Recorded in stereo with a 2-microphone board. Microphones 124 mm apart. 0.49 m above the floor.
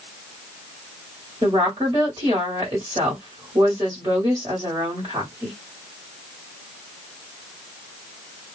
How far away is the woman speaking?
About 1.8 m.